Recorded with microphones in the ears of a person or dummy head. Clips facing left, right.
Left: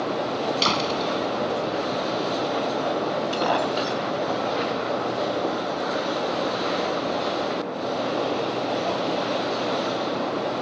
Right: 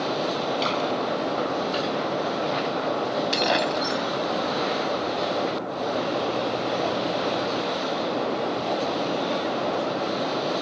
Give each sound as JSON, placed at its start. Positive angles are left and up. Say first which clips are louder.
{"t": 0.6, "sound": "a door slam", "louder": "even", "side_deg": 60}
{"t": 3.3, "sound": "breaking glass", "louder": "even", "side_deg": -30}